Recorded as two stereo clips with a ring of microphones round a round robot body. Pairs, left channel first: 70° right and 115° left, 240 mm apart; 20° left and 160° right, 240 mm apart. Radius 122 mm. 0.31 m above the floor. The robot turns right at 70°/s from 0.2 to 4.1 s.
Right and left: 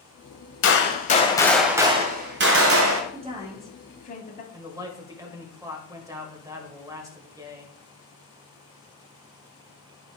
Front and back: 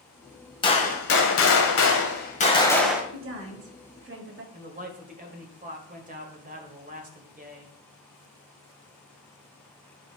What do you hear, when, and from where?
0.6 s a gunshot: 45° right, 1.3 m; by 3.0 s 120° left, 1.3 m
3.1 s a woman speaking: 170° left, 2 m; by 4.4 s 125° right, 2 m
4.5 s a man speaking: straight behind, 1.5 m